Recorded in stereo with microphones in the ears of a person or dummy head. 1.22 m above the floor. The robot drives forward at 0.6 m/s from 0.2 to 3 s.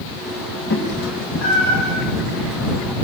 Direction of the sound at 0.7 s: 70° left (ahead or behind).